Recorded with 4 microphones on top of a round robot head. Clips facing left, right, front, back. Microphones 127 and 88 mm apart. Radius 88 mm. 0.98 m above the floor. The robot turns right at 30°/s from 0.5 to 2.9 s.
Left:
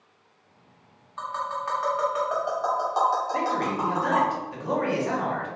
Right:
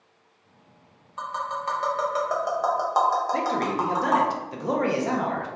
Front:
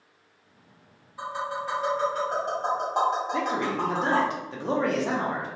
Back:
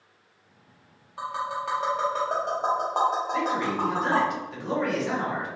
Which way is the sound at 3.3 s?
50° right.